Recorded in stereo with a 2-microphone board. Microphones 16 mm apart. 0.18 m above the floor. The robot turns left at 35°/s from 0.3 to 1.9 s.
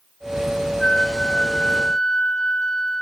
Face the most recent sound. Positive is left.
turn(degrees=95)